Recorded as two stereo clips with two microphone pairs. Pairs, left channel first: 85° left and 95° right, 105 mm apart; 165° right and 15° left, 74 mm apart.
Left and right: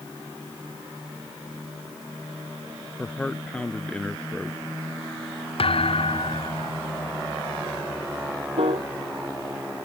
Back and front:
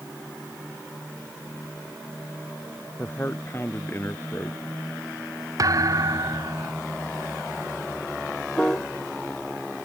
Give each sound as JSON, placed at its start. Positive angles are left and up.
{"t": 3.0, "sound": "a man speaking", "azimuth_deg": 160}
{"t": 5.6, "sound": "a thud", "azimuth_deg": 55}
{"t": 8.6, "sound": "a piano", "azimuth_deg": -85}